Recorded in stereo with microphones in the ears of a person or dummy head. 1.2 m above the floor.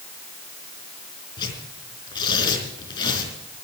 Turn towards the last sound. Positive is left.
turn(degrees=25)  # may be behind; listen again after turning